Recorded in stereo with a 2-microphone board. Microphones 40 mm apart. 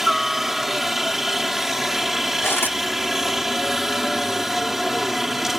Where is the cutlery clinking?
70° left (ahead or behind).